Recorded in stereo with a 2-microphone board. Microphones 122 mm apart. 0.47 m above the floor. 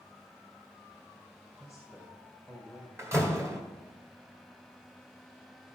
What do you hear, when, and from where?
1.6 s a man speaking: 20° right (ahead or behind), 2.5 m
3.0 s a door slam: 25° right (ahead or behind), 1.7 m